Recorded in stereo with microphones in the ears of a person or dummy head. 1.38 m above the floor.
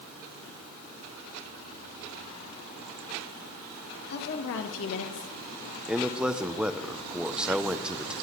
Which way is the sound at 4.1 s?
55° left (ahead or behind).